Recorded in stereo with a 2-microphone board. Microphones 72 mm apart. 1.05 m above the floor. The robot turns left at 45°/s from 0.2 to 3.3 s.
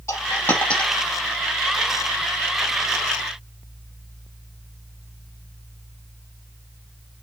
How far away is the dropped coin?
About 3 m.